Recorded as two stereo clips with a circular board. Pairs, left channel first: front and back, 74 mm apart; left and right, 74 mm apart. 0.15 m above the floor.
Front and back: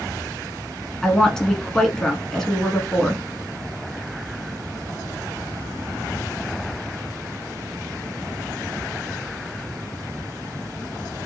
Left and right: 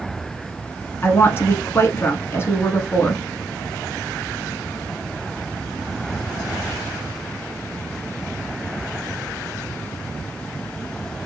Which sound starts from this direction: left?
A woman speaking, at 1.0 s.